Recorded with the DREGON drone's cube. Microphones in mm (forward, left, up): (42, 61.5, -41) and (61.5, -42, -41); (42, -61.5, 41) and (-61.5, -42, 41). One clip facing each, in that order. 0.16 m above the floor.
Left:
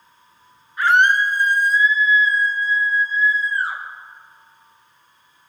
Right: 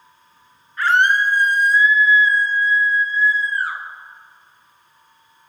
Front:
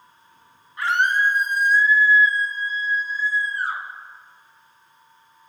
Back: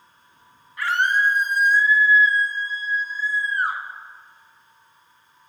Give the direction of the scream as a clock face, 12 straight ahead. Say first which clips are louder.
Left 1 dB, front 1 dB; 11 o'clock.